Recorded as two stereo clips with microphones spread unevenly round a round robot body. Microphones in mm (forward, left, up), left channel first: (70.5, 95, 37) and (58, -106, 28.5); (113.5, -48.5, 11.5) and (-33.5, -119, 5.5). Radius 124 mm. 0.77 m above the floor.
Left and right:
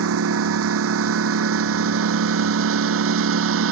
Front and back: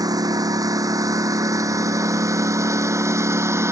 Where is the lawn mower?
85° right; by 3.7 s 80° right.